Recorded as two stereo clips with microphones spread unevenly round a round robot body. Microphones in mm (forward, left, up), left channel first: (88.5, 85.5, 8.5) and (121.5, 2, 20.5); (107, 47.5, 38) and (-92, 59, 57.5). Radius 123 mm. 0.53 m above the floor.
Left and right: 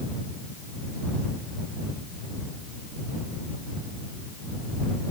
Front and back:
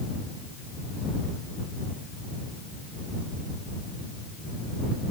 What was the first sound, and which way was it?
Only background noise.